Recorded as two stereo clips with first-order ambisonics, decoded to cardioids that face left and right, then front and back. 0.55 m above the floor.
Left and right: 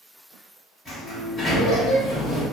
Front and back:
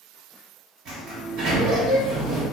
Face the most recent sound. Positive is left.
turn(degrees=175)